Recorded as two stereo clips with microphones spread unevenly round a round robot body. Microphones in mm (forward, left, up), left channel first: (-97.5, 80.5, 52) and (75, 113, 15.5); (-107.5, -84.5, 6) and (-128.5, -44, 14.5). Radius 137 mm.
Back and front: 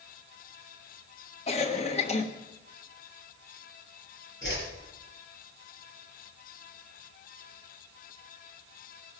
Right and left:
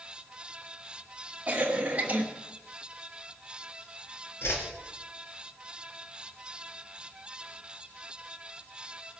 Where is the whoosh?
95° right, 3.5 m.